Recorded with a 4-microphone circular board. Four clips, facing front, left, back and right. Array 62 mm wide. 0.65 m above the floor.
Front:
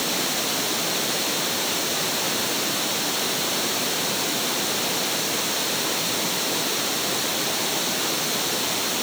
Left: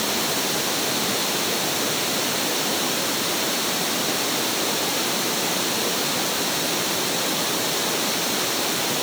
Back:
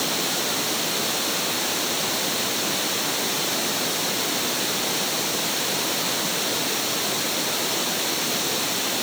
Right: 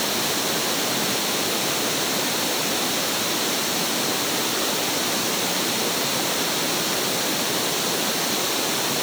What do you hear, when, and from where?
Only background noise.